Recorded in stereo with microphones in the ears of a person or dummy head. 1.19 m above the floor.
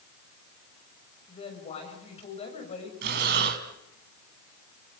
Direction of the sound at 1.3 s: 40° left (ahead or behind).